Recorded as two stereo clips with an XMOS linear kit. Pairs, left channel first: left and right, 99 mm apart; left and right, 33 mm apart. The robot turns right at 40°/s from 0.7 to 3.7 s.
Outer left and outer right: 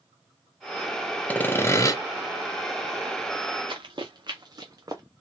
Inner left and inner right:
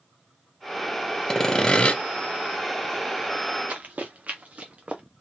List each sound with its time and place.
1.3 s sawing: 15° left (ahead or behind), 0.8 m; by 2.0 s 35° left (ahead or behind), 0.8 m
3.7 s running footsteps: 55° right (ahead or behind), 1.8 m; by 5.0 s 35° right (ahead or behind), 1.4 m